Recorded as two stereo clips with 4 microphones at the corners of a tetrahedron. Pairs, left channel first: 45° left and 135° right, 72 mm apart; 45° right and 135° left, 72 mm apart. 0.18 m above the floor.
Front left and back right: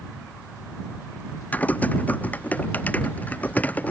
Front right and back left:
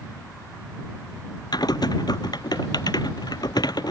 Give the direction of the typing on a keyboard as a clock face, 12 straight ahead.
1 o'clock.